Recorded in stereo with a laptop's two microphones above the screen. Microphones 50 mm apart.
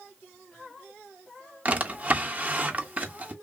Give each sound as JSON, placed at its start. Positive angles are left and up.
{"t": 1.6, "sound": "a drawer", "side_deg": -30, "distance_m": 0.6}